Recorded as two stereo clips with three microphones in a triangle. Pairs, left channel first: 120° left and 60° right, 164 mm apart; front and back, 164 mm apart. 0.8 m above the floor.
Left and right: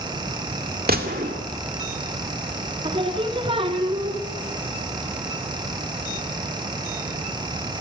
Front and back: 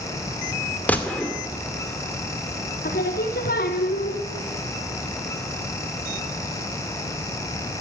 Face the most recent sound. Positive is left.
turn(degrees=-5)